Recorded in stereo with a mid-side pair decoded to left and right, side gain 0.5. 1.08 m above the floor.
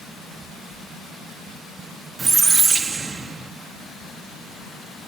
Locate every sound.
2.2 s a squeak: 30° right, 1.3 m